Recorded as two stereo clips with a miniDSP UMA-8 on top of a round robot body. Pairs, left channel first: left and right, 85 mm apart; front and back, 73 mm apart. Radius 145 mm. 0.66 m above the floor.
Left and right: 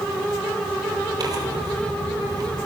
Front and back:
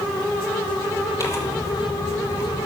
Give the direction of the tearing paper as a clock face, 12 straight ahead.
2 o'clock.